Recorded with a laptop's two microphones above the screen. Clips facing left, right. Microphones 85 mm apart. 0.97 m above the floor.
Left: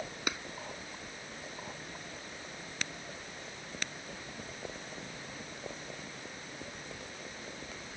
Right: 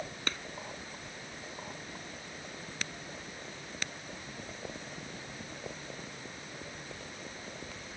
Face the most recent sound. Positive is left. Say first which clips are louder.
# left 2 dB
turn(degrees=10)  # may be behind; listen again after turning